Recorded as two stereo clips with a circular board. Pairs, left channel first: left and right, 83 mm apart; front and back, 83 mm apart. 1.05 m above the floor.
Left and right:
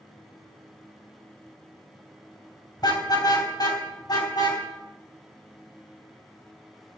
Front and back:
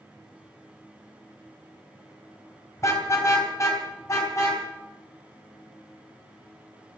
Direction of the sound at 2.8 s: 50° left.